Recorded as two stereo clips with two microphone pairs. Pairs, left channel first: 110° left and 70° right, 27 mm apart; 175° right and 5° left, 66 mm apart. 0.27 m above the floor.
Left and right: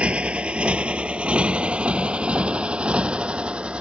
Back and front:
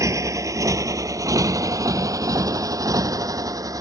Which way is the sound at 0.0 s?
30° right.